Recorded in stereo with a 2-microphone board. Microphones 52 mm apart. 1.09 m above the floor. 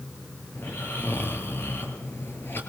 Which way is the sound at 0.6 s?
45° left (ahead or behind).